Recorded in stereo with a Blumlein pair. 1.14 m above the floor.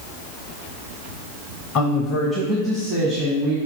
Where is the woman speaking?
35° left, 0.9 m; by 3.6 s 15° right, 2.5 m.